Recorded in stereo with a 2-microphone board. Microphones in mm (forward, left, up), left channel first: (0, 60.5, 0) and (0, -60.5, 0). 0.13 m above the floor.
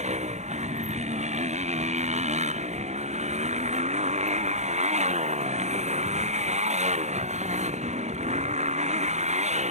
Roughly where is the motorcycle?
Right.